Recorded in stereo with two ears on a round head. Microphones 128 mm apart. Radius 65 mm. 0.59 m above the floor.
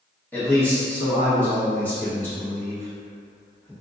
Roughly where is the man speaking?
Centre.